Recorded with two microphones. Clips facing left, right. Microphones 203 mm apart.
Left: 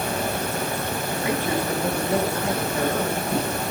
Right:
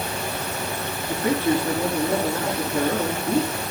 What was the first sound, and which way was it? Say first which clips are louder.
A man speaking: right 5 dB; 45° right (ahead or behind).